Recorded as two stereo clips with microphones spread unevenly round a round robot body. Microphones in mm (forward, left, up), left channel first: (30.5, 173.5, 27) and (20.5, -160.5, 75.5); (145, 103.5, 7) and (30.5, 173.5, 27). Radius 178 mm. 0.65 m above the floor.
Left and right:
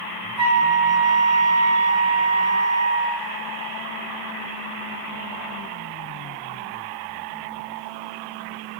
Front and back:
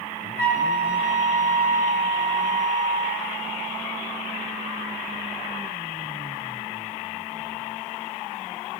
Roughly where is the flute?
Ahead right.